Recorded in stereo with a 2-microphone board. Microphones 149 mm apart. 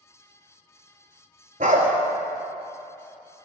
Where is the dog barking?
60° right (ahead or behind), 0.8 m.